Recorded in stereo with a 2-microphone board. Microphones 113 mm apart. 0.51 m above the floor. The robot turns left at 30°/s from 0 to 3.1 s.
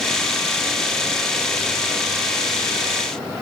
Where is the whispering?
No whispering in this recording.